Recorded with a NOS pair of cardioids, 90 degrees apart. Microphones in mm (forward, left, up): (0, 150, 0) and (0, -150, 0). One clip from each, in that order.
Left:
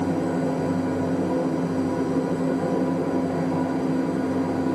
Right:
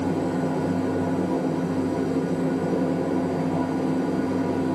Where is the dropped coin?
No dropped coin in this recording.